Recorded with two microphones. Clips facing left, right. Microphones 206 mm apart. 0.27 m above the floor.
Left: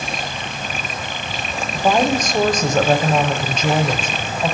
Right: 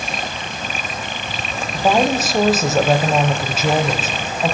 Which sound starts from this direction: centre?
A woman speaking, at 1.7 s.